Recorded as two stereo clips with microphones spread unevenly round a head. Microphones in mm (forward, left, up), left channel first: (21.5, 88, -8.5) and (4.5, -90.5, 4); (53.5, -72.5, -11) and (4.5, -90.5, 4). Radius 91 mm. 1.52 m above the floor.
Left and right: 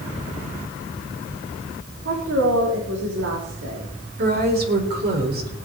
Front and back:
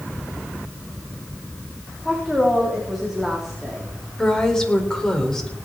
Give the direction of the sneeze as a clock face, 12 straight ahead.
No sneeze in this recording.